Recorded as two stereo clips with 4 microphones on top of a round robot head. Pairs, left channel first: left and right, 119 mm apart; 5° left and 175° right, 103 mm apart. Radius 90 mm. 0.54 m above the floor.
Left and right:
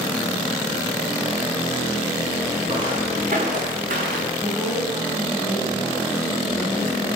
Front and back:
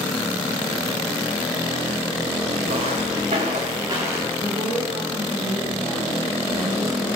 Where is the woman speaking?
170° right, 3 m.